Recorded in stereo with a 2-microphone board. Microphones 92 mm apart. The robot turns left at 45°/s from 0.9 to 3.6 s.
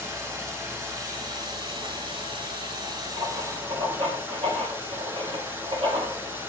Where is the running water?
30° right, 4.5 m; by 6.5 s 150° right, 4.5 m.